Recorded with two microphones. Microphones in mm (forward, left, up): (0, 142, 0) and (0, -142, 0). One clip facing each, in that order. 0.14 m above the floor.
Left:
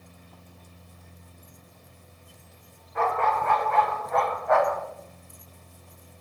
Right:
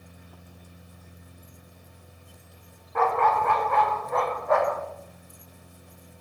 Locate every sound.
3.0 s a dog barking: 65° right (ahead or behind), 3.5 m; by 4.8 s 35° right (ahead or behind), 2.5 m